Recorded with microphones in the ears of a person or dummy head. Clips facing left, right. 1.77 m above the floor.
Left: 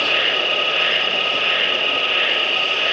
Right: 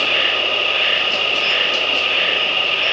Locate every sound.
0.0 s an insect: centre (ahead or behind), 1.0 m